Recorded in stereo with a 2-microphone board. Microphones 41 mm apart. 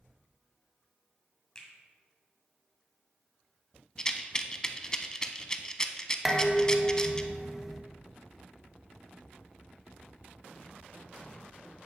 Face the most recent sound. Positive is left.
turn(degrees=-5)  # may be behind; listen again after turning